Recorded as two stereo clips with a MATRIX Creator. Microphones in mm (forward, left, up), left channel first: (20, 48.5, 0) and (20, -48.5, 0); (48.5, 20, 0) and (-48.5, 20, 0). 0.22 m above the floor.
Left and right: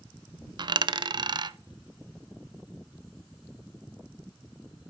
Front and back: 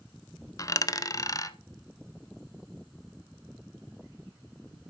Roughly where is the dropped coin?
Ahead right.